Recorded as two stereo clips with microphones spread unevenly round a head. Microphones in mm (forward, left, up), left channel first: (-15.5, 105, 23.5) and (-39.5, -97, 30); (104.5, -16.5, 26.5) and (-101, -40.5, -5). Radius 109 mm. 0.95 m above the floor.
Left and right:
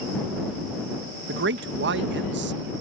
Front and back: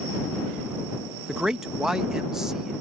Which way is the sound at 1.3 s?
95° right.